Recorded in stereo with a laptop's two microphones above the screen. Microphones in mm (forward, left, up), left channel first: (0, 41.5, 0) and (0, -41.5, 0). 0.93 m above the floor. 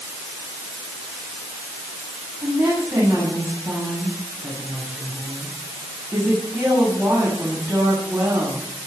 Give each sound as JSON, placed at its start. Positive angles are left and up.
{"t": 2.4, "sound": "a woman speaking", "side_deg": -20, "distance_m": 7.5}